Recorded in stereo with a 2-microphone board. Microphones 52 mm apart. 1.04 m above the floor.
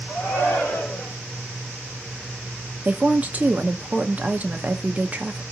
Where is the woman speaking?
30° right (ahead or behind), 0.6 m.